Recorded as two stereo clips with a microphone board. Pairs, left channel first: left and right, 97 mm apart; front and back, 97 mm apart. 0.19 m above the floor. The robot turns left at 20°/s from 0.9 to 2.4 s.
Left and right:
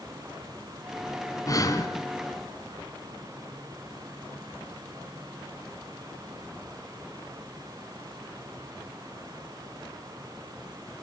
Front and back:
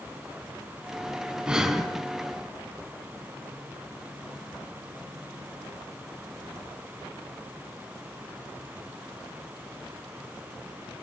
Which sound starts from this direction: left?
Breathing, at 1.5 s.